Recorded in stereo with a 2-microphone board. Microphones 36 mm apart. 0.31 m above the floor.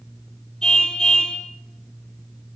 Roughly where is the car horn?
Left.